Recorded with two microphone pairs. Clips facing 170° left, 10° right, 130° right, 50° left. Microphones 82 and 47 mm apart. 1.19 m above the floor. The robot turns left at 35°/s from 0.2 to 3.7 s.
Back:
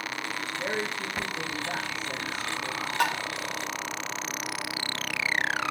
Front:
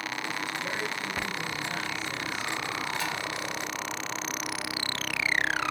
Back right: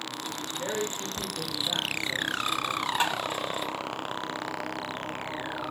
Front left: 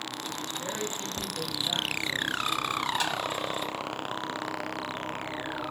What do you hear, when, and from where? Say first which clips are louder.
0.6 s a woman speaking: back 2 dB, back right 5 dB; 175° left, 1.9 m; by 3.1 s 90° left, 1.9 m
3.0 s tapping: back 6 dB, back right 3 dB; 165° left, 0.8 m; by 3.2 s 155° left, 0.8 m